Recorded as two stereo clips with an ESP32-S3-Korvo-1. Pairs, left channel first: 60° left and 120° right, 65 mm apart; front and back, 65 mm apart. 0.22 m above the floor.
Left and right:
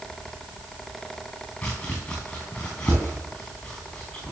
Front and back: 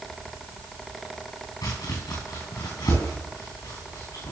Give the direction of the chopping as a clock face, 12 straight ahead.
12 o'clock.